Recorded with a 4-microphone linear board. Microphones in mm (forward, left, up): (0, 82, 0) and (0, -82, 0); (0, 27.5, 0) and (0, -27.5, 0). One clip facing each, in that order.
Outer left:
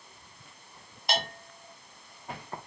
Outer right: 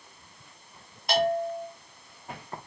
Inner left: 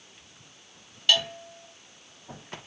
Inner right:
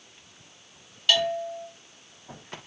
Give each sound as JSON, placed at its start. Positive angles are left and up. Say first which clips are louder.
{"t": 1.1, "sound": "a bell", "louder": "outer right 10 dB, inner right 2 dB", "side_deg": 0, "distance_m": 1.7}